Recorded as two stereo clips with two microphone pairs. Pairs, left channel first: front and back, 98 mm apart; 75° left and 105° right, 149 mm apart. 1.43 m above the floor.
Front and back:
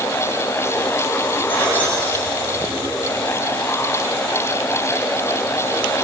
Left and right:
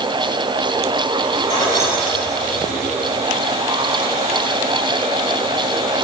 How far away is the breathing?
No breathing in this recording.